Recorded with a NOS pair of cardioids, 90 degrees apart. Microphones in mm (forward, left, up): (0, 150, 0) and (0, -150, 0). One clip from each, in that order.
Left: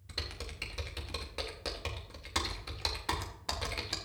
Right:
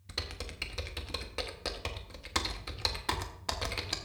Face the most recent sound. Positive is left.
turn(degrees=-15)